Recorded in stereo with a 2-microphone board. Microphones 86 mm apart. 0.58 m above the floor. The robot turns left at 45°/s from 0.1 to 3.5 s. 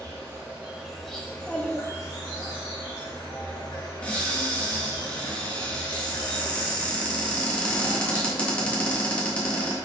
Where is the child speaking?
20° left, 0.8 m; by 2.5 s 35° right, 0.8 m.